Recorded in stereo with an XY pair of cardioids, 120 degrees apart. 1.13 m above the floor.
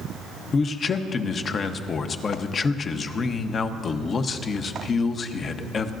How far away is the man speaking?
About 0.9 m.